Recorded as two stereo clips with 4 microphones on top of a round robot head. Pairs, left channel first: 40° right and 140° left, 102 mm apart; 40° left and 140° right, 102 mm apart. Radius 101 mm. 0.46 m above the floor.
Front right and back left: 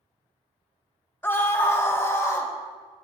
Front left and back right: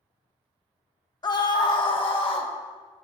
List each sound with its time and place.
1.2 s a scream: 20° left, 1.3 m